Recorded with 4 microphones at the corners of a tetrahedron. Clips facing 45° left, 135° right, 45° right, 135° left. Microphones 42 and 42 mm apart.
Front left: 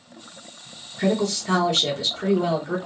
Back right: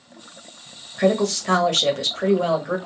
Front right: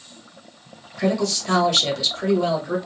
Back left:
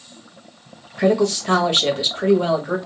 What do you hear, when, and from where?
1.0 s a woman speaking: 160° right, 1.2 m